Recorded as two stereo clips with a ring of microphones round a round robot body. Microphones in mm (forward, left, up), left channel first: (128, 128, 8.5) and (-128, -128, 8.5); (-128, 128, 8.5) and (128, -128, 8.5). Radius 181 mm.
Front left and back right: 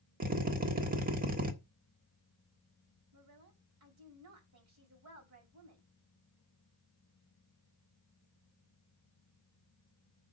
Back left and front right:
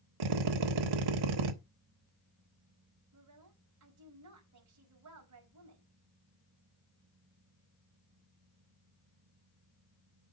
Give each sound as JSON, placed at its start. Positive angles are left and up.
{"t": 0.2, "sound": "a drill", "azimuth_deg": -70, "distance_m": 1.3}
{"t": 3.1, "sound": "a woman speaking", "azimuth_deg": -90, "distance_m": 5.5}